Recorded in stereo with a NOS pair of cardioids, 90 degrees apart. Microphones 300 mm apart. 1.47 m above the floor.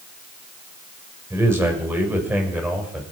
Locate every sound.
1.3 s a man speaking: 10° right, 6 m; by 3.0 s straight ahead, 6.5 m